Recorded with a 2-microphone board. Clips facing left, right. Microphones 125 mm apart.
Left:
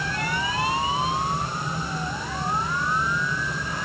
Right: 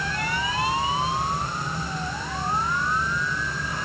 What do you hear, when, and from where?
Only background noise.